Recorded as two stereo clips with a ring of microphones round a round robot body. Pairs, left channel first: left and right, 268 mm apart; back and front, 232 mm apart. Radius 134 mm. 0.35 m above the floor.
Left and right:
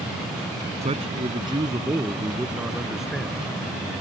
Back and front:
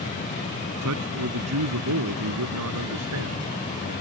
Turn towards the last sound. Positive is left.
turn(degrees=5)